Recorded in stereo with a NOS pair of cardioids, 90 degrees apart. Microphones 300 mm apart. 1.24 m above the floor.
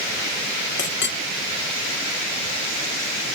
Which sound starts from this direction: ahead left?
A clink, at 0.8 s.